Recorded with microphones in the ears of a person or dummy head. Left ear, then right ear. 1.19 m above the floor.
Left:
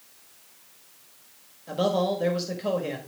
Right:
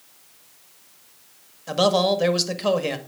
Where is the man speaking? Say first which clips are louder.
Right 6 dB; 40° right (ahead or behind), 1.5 m.